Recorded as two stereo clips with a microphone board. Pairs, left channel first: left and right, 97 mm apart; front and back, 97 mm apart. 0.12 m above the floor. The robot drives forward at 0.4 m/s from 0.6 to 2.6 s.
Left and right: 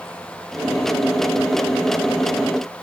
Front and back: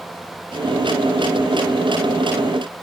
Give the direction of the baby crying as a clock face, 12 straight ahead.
No baby crying in this recording.